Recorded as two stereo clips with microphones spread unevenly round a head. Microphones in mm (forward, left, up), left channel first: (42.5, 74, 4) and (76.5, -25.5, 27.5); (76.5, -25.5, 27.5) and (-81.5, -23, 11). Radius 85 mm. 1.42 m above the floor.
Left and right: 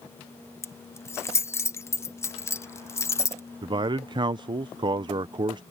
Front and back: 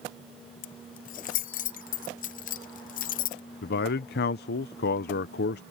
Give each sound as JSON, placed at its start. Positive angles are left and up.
{"t": 0.6, "sound": "keys jangling", "azimuth_deg": 40}
{"t": 3.6, "sound": "a man speaking", "azimuth_deg": -25}